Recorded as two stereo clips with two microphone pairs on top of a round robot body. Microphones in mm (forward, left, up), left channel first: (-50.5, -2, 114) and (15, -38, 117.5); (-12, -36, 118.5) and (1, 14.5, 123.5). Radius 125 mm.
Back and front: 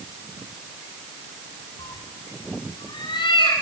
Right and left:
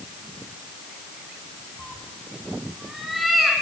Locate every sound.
1.8 s a cat meowing: 165° left, 3 m